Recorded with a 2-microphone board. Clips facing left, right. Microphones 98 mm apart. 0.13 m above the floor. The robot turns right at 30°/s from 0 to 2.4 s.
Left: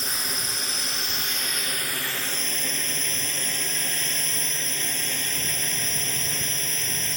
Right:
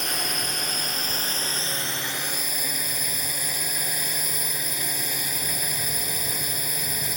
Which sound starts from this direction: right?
A drone, at 0.0 s.